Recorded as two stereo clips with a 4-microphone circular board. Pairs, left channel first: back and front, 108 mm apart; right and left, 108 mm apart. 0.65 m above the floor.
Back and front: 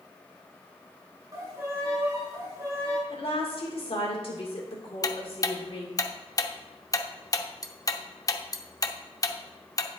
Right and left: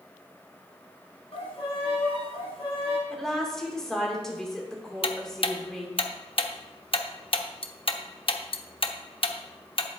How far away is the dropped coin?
I don't hear a dropped coin.